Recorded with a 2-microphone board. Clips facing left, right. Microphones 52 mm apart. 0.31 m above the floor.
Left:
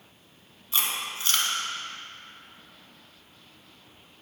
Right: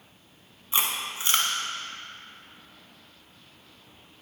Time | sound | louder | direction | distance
0.7 | chewing | right 1 dB | 25° right (ahead or behind) | 0.9 m